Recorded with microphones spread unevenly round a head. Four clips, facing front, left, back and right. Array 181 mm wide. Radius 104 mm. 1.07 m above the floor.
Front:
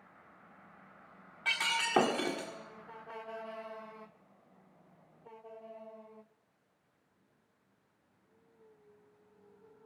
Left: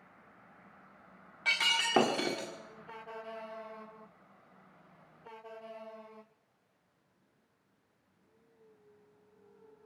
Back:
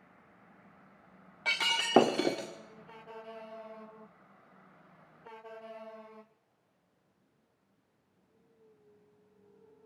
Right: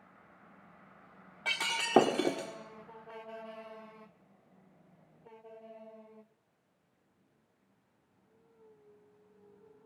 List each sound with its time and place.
1.4 s breaking glass: 155° right, 1.4 m